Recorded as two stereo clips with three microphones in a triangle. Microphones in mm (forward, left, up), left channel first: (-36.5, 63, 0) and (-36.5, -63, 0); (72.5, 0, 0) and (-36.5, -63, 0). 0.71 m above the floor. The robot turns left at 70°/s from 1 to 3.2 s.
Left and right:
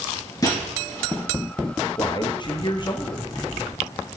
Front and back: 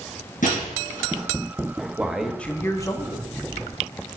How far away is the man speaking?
About 0.8 m.